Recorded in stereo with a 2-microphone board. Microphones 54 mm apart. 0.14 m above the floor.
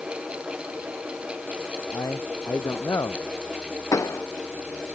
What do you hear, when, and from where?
1.9 s a man speaking: 80° left
3.9 s a pop: 80° left